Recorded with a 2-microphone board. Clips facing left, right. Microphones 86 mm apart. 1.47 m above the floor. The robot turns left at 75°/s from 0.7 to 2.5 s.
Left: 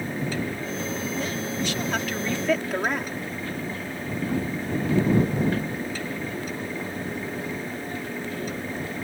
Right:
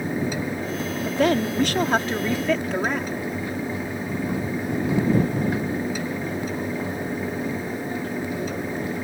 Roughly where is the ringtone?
No ringtone in this recording.